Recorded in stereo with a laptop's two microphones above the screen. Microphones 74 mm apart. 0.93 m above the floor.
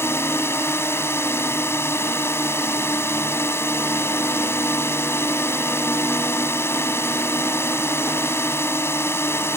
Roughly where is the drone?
Left.